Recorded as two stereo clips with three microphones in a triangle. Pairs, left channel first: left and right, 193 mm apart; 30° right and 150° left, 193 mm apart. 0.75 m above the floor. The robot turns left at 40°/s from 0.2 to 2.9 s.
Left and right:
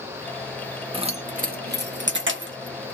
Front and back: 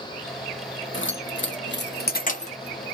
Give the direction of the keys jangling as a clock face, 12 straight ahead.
1 o'clock.